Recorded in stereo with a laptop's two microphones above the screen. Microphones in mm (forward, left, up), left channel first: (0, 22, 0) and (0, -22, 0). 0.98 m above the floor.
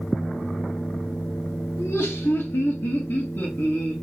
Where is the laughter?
80° left, 1.3 m; by 3.9 s 45° left (ahead or behind), 1.8 m.